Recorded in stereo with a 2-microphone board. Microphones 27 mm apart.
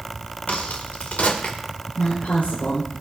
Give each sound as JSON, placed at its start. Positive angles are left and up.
{"t": 0.5, "sound": "a crack", "side_deg": 60, "distance_m": 2.5}
{"t": 1.9, "sound": "a woman speaking", "side_deg": 80, "distance_m": 4.0}